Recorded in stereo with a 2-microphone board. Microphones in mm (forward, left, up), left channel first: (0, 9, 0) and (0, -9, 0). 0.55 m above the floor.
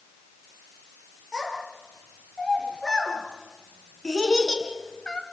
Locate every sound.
1.3 s a child speaking: 30° left (ahead or behind), 7.5 m; by 5.2 s 45° left (ahead or behind), 2.5 m